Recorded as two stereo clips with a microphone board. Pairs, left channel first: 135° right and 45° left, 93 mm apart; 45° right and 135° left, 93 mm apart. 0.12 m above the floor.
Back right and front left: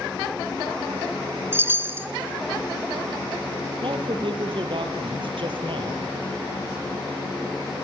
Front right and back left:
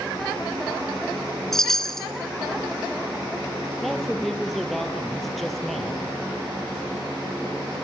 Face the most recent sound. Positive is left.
turn(degrees=45)